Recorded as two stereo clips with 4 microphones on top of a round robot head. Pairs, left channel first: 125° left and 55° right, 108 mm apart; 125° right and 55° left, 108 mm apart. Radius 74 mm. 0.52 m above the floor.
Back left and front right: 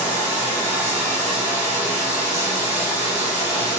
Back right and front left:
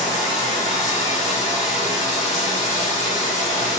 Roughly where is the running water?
Behind right.